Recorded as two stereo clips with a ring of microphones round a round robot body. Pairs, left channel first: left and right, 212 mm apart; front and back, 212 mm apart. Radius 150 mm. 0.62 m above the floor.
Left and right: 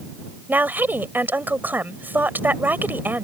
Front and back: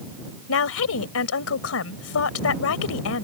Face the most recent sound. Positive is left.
turn(degrees=-10)